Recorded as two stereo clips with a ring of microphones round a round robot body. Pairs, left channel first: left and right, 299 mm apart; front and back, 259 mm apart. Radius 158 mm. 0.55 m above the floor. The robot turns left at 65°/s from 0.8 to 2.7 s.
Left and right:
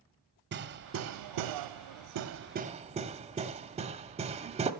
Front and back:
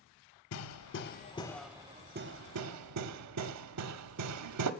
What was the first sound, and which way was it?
Hammering, 35° right.